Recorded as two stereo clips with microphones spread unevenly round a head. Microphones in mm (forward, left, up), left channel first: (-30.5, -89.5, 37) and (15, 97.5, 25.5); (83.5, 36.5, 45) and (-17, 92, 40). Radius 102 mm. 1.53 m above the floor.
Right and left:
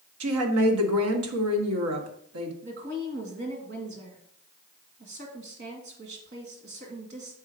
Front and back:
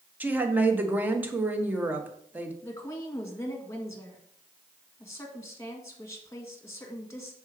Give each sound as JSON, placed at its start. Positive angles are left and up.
{"t": 0.2, "sound": "a woman speaking", "azimuth_deg": 75, "distance_m": 1.4}
{"t": 2.6, "sound": "a woman speaking", "azimuth_deg": 35, "distance_m": 2.0}